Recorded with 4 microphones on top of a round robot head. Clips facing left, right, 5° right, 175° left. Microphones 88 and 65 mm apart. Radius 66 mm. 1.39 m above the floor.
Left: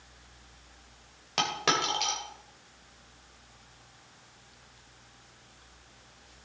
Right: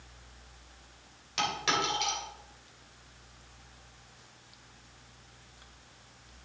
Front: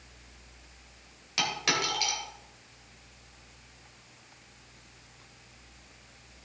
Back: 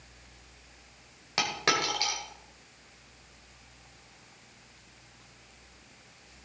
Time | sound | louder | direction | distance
1.4 | a dropped coin | left 2 dB, back 2 dB | 125° left | 2.5 m